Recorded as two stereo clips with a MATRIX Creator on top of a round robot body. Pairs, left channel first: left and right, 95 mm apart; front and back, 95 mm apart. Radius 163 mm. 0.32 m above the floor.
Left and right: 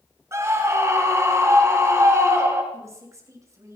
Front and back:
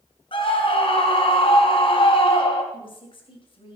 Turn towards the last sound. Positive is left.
turn(degrees=-30)